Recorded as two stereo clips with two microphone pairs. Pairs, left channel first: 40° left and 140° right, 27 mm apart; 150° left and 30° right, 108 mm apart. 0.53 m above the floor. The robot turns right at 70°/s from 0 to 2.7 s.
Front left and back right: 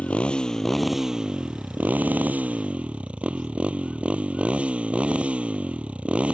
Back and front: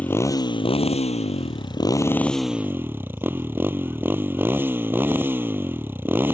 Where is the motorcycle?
75° left; by 6.3 s 100° right.